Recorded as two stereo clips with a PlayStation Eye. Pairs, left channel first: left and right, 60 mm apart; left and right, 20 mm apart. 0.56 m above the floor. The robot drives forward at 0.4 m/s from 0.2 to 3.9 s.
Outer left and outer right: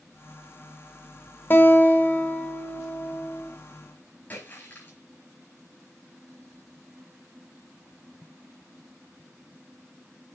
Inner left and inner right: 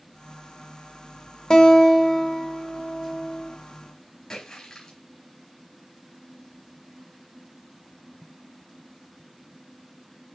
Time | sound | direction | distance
1.5 | a guitar | 35° left (ahead or behind) | 1.2 m
4.3 | a splash | 35° left (ahead or behind) | 4.5 m